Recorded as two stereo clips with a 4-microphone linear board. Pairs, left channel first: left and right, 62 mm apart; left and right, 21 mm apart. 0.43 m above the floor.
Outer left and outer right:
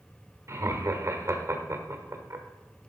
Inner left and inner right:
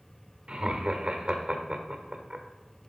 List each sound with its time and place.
0.5 s laughter: 45° right (ahead or behind), 1.3 m